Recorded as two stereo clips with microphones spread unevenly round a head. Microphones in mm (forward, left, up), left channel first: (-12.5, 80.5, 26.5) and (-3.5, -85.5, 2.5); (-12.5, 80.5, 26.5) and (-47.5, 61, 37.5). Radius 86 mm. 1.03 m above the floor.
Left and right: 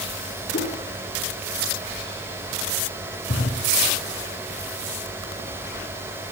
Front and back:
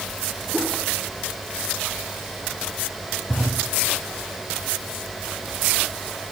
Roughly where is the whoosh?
Behind left.